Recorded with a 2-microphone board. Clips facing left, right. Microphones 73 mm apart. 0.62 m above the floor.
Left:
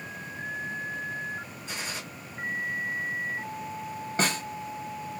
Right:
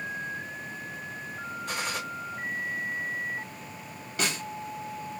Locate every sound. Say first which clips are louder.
1.7 s a gunshot: right 4 dB; 65° right (ahead or behind), 1.8 m
4.2 s a snare drum: left 3 dB; 35° left (ahead or behind), 1.3 m